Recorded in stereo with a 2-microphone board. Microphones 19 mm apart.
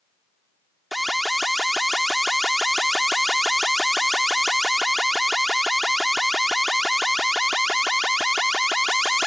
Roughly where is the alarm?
Centre.